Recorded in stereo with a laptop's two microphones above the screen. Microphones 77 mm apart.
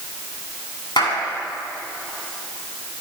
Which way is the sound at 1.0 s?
75° left (ahead or behind).